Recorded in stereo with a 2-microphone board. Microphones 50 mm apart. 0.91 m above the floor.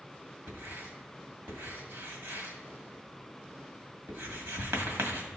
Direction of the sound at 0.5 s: 55° right (ahead or behind).